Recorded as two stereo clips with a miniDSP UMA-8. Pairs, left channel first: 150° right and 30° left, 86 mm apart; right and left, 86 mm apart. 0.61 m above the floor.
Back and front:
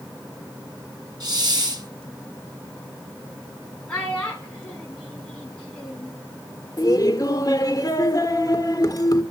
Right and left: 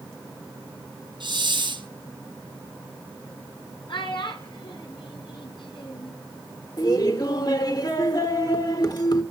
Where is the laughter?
120° right, 2 m.